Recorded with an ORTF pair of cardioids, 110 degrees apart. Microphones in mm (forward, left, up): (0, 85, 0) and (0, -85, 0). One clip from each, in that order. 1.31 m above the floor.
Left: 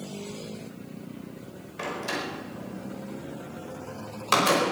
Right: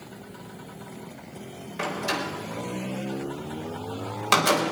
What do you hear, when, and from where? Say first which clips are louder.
1.8 s a door slam: right 3 dB; 20° right, 4.5 m